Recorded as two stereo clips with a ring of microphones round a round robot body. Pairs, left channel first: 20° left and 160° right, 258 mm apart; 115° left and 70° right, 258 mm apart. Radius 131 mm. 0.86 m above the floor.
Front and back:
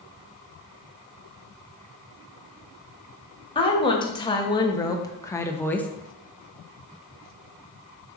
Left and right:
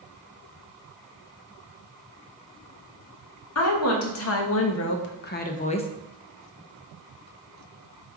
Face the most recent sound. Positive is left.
turn(degrees=100)